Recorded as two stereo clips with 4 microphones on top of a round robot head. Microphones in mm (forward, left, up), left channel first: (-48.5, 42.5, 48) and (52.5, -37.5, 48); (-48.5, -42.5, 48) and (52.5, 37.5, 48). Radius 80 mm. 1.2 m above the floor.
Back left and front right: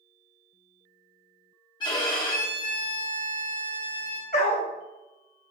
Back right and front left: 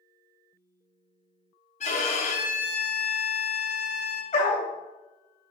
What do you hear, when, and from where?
1.8 s a violin: 170° right, 0.9 m
4.3 s a dog barking: 175° left, 0.8 m